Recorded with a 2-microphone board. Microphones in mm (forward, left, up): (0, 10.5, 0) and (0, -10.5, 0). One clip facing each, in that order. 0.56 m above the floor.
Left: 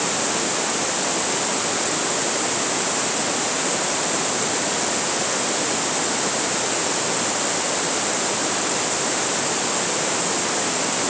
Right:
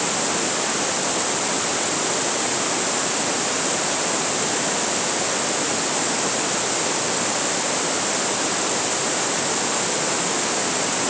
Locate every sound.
Only background noise.